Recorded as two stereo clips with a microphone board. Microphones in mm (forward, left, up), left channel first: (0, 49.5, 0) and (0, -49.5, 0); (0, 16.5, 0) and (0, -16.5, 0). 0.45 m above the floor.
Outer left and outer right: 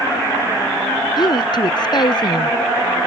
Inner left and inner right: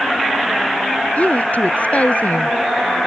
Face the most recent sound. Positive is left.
turn(degrees=45)  # may be behind; listen again after turning